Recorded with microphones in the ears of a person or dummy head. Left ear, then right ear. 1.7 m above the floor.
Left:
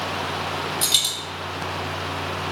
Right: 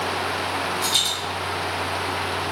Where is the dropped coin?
50° left (ahead or behind), 1.9 m.